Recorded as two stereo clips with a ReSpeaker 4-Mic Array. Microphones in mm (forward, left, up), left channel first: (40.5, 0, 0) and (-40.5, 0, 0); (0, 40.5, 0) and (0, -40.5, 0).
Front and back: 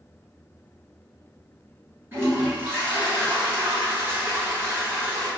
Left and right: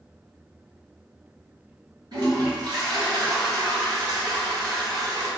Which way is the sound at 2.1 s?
115° right.